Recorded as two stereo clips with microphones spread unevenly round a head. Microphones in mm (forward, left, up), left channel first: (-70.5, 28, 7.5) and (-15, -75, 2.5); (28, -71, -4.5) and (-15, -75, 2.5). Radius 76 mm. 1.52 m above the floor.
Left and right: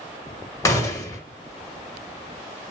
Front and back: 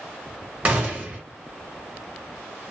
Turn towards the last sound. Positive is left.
turn(degrees=155)